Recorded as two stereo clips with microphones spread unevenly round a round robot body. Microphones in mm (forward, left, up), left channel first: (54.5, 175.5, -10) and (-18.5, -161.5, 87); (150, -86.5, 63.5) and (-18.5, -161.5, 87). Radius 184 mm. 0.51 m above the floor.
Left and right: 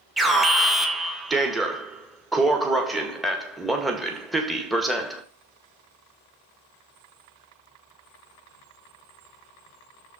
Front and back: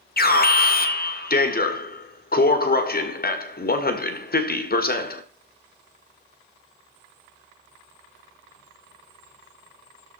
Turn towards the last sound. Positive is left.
turn(degrees=-5)